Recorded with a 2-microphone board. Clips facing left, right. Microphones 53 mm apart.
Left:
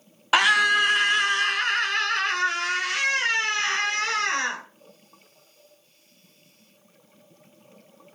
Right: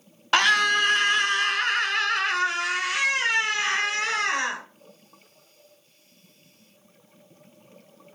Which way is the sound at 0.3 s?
5° left (ahead or behind).